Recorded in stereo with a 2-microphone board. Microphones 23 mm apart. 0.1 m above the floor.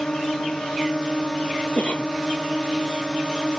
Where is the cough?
60° left (ahead or behind).